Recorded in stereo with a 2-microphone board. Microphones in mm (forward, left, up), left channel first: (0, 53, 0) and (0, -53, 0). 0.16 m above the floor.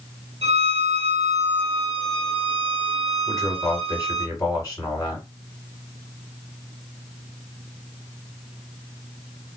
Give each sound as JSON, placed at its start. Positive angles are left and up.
{"t": 0.4, "sound": "a violin", "side_deg": -75, "distance_m": 0.8}
{"t": 3.3, "sound": "a man speaking", "side_deg": 30, "distance_m": 1.8}